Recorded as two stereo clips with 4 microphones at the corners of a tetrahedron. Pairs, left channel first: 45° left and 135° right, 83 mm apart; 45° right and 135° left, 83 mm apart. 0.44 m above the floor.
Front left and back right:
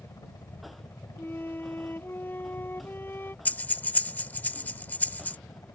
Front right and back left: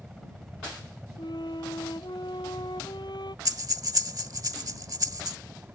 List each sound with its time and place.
0.0 s a helicopter: 35° left; by 5.8 s 70° left
1.2 s a flute: 20° right
3.5 s breathing: 110° left